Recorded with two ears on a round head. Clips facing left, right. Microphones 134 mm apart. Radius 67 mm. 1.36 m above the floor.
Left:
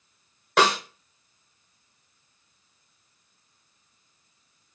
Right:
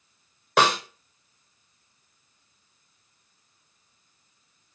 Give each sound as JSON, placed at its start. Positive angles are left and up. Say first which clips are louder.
{"t": 0.6, "sound": "a snare drum", "louder": "even", "side_deg": 0, "distance_m": 0.9}